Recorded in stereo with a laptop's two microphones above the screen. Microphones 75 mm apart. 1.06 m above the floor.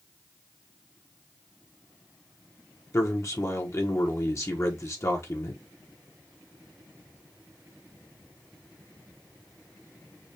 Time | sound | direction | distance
2.9 | a man speaking | 40° left (ahead or behind) | 0.9 m